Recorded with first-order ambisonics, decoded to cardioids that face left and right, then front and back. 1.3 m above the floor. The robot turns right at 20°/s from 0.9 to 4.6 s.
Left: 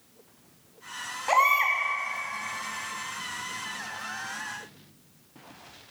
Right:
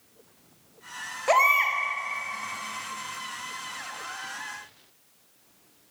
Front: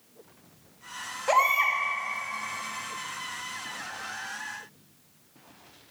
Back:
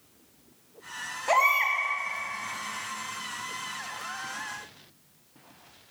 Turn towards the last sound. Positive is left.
turn(degrees=-15)